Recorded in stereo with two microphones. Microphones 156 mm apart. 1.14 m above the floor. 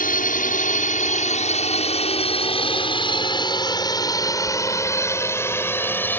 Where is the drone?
60° left (ahead or behind); by 6.2 s 10° left (ahead or behind).